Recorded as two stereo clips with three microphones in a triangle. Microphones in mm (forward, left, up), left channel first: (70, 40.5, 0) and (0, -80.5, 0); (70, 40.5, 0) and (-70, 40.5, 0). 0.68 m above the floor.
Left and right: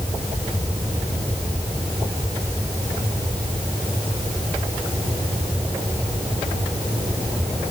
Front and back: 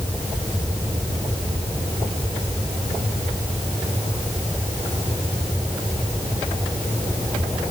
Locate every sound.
Only background noise.